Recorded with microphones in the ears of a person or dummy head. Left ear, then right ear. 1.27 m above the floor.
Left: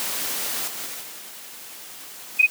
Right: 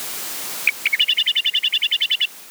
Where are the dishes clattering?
No dishes clattering in this recording.